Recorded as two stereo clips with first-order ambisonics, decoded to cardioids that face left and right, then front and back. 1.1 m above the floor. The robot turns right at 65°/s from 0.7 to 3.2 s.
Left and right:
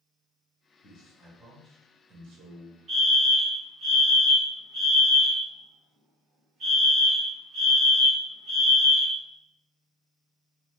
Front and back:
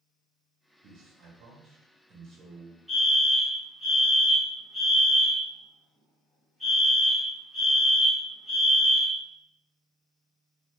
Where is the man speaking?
135° left, 0.9 m; by 2.8 s 100° right, 0.9 m.